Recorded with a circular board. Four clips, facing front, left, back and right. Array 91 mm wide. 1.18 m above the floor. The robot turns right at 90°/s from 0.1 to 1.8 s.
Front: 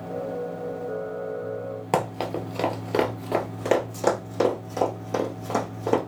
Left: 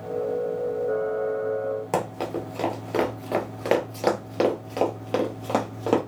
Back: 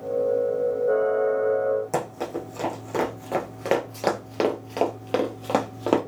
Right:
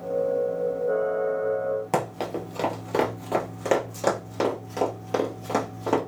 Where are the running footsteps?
5° right, 1.4 m; by 6.0 s 160° left, 1.7 m.